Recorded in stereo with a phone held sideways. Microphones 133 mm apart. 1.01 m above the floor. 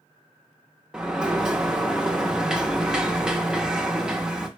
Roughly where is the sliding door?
Centre.